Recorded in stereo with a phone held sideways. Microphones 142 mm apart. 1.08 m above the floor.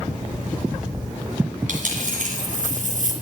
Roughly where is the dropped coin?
Right.